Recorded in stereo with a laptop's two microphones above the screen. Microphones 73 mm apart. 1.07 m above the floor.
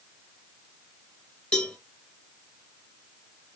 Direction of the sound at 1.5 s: 10° left (ahead or behind).